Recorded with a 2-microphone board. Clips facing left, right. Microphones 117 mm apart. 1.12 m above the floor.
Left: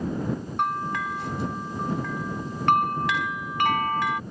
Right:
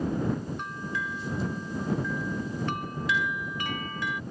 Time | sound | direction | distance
0.6 | a bell | 75° left (ahead or behind) | ?